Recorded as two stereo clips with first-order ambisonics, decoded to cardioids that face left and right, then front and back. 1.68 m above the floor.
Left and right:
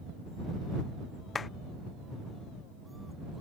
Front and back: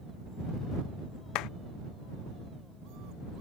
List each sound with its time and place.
1.4 s a clap: 20° left